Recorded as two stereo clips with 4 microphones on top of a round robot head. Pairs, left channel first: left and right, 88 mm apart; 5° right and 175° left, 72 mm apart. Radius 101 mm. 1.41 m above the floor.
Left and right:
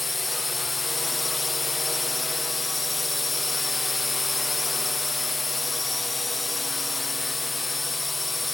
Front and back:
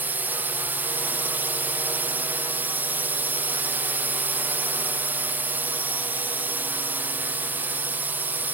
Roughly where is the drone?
Behind.